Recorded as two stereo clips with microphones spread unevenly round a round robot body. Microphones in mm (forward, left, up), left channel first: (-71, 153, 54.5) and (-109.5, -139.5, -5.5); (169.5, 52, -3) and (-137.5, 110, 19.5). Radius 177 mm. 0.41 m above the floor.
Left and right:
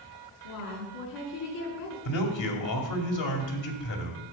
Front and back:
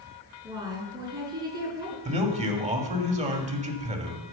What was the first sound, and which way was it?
A woman speaking, 90° left.